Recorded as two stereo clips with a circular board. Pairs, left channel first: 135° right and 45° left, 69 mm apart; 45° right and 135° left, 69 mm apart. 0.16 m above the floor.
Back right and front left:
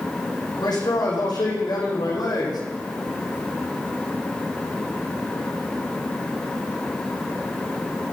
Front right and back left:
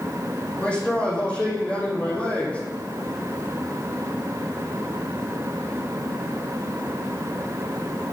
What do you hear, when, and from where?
0.6 s a man speaking: 120° right, 8 m; by 2.6 s 115° right, 6 m